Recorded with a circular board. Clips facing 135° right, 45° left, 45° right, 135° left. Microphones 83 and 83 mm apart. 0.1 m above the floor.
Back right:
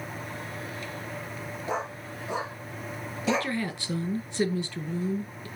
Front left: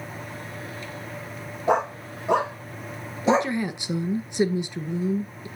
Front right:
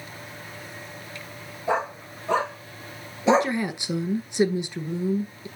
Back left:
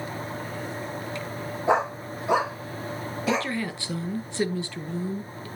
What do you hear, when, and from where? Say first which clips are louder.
1.7 s a dog barking: front left 10 dB, back left 3 dB; 65° left, 2 m; by 3.5 s 25° right, 0.8 m
3.3 s a woman speaking: front left 6 dB, front right 7 dB; straight ahead, 1.1 m